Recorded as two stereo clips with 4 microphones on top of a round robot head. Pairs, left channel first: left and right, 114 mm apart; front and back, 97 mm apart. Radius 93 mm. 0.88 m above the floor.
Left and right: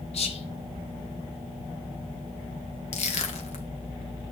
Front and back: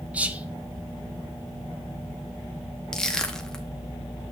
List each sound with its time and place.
0.1 s whispering: 105° left, 1.6 m
2.9 s crushing: 85° left, 1.8 m